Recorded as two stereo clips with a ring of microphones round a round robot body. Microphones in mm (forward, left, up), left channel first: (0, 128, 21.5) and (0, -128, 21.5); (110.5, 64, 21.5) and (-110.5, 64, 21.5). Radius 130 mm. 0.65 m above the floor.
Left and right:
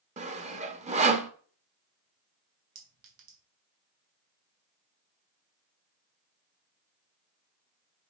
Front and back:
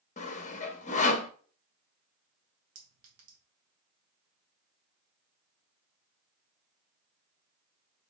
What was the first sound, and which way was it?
Sawing, 40° right.